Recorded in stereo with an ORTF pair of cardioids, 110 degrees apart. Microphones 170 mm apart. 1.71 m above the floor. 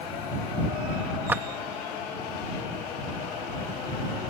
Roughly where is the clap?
Ahead.